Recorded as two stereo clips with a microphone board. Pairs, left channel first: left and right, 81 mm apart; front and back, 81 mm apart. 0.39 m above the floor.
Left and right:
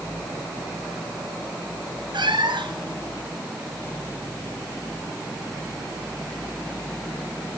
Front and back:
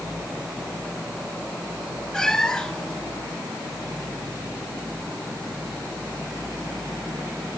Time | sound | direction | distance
2.1 | a cat meowing | 80° right | 2.5 m